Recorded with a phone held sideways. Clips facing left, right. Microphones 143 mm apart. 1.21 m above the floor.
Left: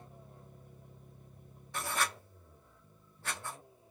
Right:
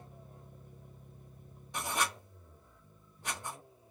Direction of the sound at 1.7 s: 15° right (ahead or behind).